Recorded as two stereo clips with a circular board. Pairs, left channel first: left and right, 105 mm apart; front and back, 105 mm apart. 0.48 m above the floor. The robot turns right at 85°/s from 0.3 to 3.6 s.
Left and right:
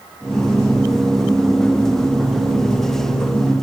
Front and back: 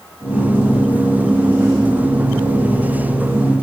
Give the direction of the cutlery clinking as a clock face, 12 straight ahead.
I don't hear cutlery clinking.